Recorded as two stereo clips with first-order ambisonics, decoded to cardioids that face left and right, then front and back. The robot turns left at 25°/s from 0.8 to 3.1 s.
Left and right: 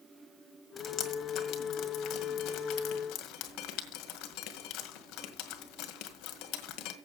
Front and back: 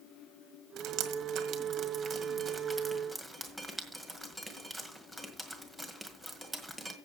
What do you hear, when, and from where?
0.8 s dripping: 155° left, 1.8 m; by 7.0 s 95° left, 1.8 m